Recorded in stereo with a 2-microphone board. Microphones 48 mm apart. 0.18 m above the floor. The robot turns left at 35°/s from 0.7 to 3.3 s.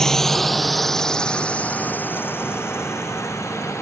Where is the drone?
10° left (ahead or behind); by 3.8 s 80° left.